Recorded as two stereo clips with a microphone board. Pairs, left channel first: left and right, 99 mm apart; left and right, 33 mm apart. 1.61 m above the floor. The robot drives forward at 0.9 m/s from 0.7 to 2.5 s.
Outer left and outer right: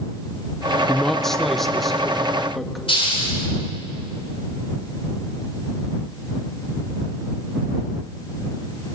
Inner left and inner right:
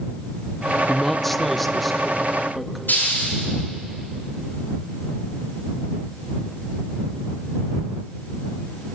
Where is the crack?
I don't hear a crack.